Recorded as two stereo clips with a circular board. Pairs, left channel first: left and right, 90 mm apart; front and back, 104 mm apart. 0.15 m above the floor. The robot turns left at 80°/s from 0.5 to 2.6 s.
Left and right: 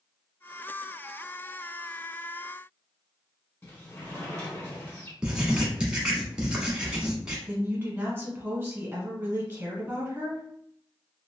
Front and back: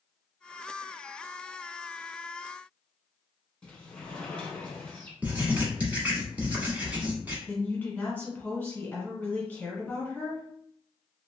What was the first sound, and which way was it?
A sliding door, 70° left.